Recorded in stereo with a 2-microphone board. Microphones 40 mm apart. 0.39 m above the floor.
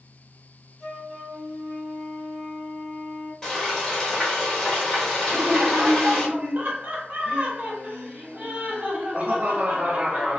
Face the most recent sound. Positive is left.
turn(degrees=-45)  # may be behind; listen again after turning